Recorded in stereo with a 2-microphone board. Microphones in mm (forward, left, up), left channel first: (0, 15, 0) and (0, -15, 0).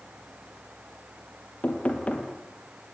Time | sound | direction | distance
1.6 | knocking | 45° left (ahead or behind) | 4 m